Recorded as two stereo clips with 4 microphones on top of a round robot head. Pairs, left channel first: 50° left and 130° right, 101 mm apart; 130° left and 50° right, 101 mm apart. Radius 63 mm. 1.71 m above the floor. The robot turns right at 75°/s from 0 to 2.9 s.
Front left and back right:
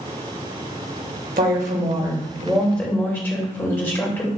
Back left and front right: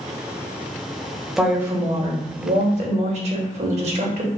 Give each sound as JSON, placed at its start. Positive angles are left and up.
{"t": 1.4, "sound": "a woman speaking", "azimuth_deg": -135, "distance_m": 0.8}